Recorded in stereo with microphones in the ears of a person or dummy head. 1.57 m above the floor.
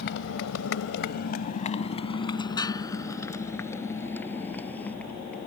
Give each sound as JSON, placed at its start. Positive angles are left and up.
{"t": 0.0, "sound": "a motorcycle", "side_deg": 65}